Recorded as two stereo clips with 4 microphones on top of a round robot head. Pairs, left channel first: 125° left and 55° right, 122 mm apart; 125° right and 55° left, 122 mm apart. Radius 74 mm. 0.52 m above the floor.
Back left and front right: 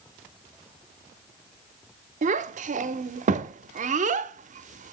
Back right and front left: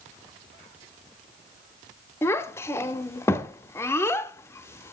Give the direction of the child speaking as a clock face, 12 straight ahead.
2 o'clock.